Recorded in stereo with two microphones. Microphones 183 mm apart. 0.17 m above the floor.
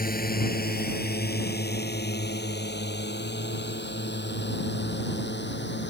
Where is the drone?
55° left (ahead or behind); by 5.9 s 75° left (ahead or behind).